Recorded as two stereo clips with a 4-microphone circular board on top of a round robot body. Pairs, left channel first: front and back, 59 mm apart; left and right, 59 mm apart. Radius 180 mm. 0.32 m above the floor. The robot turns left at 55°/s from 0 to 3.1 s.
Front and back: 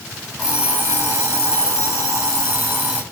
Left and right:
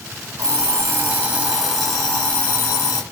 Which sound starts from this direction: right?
An alarm clock, at 0.4 s.